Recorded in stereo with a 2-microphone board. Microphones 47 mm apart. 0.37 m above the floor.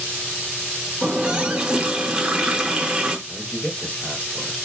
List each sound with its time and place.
1.0 s a running tap: 15° right (ahead or behind), 0.7 m
3.3 s a man speaking: 10° left (ahead or behind), 1.0 m